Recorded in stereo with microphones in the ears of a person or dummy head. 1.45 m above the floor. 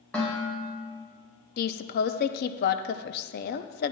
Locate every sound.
0.1 s dishes clattering: 5° left (ahead or behind), 4 m
1.6 s a woman speaking: 60° left (ahead or behind), 0.6 m